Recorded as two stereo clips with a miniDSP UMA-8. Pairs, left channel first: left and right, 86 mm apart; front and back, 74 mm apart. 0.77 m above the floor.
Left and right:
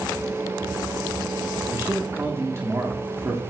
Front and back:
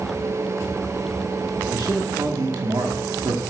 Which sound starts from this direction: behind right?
A man speaking, at 1.7 s.